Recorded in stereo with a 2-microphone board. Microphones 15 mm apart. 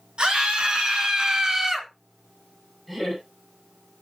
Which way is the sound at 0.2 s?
75° right (ahead or behind).